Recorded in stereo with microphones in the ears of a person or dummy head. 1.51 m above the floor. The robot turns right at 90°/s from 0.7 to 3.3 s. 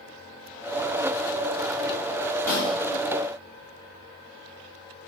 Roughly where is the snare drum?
Centre.